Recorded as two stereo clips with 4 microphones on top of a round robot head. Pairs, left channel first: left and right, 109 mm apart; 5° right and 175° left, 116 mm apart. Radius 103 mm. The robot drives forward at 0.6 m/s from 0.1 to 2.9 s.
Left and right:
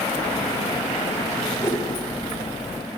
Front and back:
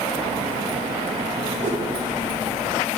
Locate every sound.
1.6 s a whoosh: 155° left, 0.9 m; by 1.8 s 160° left, 1.1 m